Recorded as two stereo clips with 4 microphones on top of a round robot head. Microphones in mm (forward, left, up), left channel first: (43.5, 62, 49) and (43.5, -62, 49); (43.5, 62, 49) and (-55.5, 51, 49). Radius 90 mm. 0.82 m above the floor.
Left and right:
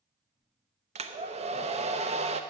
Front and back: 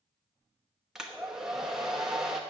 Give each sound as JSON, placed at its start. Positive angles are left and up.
{"t": 0.9, "sound": "a hair dryer", "azimuth_deg": -90, "distance_m": 0.9}